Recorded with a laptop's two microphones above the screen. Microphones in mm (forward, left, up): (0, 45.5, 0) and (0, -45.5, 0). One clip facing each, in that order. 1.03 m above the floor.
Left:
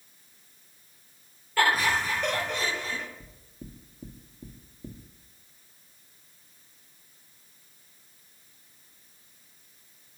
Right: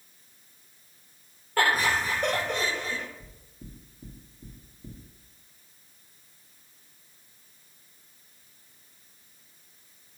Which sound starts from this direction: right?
Laughter, at 1.6 s.